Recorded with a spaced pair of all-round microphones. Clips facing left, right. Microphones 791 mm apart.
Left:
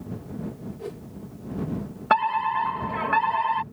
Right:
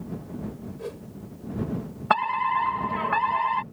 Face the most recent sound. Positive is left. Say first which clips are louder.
# left 2 dB
turn(degrees=-35)  # may be behind; listen again after turning